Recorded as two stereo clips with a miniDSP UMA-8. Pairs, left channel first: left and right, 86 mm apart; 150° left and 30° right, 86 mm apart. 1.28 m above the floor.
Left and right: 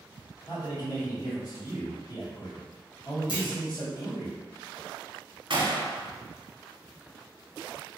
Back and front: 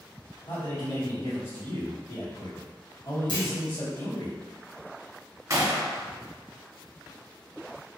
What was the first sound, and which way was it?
A man speaking, 135° left.